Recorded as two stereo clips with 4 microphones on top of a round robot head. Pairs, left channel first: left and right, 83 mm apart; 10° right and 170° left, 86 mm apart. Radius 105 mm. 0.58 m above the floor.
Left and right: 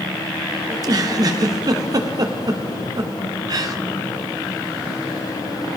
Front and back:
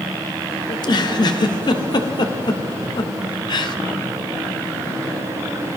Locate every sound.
0.7 s a giggle: 45° right, 1.0 m